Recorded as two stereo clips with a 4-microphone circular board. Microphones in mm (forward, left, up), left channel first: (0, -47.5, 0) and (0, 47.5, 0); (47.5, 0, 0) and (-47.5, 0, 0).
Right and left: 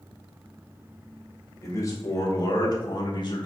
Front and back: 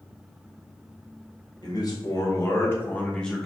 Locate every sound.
1.6 s a man speaking: 35° right, 1.5 m; by 3.5 s 90° right, 1.1 m